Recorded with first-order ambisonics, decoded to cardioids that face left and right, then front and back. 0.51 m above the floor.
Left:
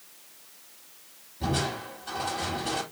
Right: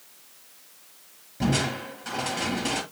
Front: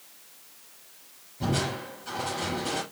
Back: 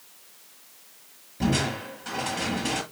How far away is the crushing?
About 6.5 m.